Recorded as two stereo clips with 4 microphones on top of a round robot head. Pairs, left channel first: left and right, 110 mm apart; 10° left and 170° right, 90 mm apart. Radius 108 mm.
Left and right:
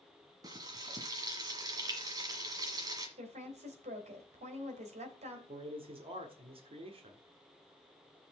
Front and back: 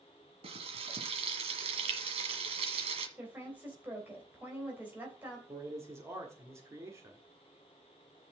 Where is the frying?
150° right, 1.4 m.